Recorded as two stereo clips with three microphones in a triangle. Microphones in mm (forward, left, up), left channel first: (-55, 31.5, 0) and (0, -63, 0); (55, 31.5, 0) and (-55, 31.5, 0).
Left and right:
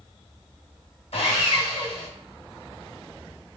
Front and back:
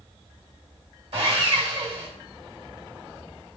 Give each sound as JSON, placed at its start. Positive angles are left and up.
{"t": 1.1, "sound": "sawing", "azimuth_deg": 145, "distance_m": 1.5}